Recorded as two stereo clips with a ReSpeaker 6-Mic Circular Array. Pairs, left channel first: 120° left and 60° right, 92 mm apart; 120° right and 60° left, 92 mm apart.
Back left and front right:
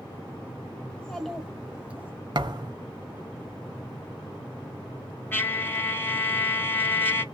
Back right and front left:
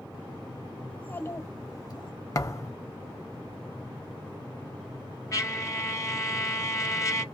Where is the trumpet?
175° right, 0.6 m.